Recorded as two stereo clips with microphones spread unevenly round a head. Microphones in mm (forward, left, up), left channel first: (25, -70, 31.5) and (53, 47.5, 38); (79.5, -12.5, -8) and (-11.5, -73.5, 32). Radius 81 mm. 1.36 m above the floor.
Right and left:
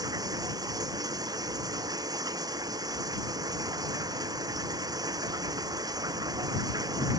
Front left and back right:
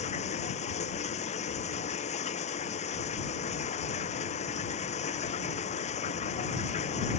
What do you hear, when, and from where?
0.0 s running water: 20° left